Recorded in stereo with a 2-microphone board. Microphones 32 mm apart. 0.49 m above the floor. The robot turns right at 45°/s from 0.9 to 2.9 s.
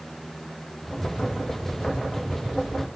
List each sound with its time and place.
Only background noise.